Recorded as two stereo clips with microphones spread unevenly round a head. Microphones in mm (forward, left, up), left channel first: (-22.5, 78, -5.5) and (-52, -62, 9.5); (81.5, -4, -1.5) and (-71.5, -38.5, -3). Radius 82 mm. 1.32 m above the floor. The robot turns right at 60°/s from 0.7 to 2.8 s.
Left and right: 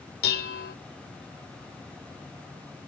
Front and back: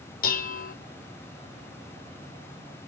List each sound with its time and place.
0.2 s dishes clattering: 50° left, 0.8 m; by 0.8 s 55° left, 0.8 m